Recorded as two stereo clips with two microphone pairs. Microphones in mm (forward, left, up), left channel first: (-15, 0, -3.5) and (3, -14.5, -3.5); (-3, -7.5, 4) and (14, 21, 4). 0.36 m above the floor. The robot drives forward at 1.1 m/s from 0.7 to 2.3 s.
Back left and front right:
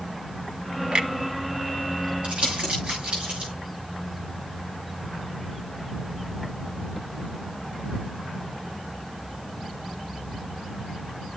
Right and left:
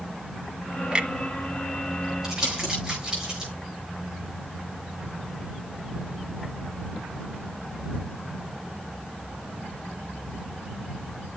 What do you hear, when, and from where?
0.9 s a clunk: 5° right, 0.8 m
2.2 s crumpling: 15° right, 8 m